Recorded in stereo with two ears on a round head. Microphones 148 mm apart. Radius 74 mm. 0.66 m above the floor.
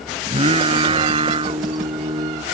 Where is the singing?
35° right (ahead or behind).